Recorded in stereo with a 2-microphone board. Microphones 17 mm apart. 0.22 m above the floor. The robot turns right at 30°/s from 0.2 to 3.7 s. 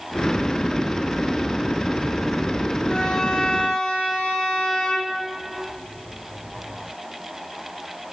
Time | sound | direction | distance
2.9 | a violin | 55° left (ahead or behind) | 5 m